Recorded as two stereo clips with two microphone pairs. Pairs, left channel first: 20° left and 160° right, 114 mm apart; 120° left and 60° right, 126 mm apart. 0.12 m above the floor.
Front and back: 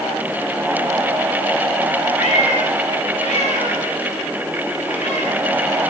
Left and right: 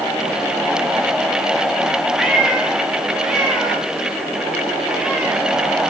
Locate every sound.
2.2 s a cat meowing: 30° left, 8.5 m; by 5.4 s 25° left, 10 m